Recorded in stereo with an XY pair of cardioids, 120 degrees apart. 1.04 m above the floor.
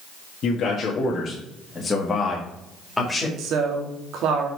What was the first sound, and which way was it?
A man speaking, 55° left.